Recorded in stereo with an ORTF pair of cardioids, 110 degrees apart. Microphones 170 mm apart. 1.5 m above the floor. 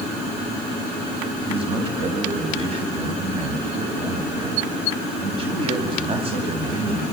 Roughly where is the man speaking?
Ahead right.